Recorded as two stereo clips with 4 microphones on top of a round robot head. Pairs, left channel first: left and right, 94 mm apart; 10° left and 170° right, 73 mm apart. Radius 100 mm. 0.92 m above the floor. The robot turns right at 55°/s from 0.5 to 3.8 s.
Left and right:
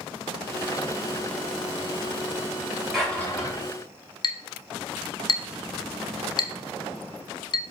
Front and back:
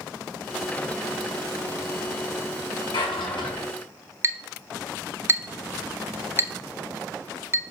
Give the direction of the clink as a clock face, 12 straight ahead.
8 o'clock.